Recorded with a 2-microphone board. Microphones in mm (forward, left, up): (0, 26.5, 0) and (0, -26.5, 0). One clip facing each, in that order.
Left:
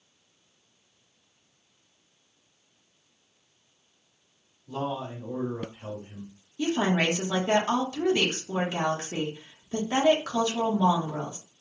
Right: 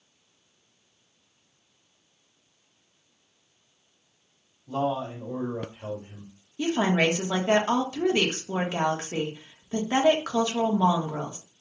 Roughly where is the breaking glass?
I don't hear breaking glass.